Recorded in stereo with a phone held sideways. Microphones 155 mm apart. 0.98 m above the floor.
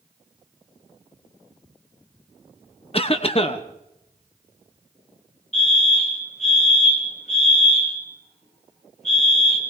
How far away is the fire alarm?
About 3.5 m.